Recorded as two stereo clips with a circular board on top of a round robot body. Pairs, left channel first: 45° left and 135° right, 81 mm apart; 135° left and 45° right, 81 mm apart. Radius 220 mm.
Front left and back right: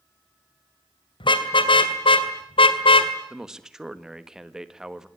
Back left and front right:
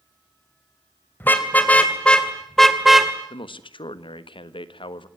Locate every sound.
1.2 s a car horn: 65° left, 2.5 m; by 3.1 s 40° left, 1.8 m
3.3 s a man speaking: 140° left, 1.6 m